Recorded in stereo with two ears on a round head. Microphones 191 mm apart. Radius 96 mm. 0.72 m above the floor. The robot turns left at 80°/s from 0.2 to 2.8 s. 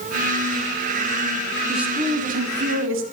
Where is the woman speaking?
5° left, 1.8 m; by 3.0 s 85° right, 1.8 m.